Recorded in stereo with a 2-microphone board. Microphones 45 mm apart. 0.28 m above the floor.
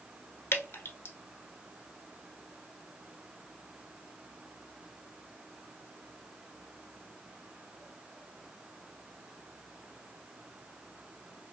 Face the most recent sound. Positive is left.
turn(degrees=75)  # may be behind; listen again after turning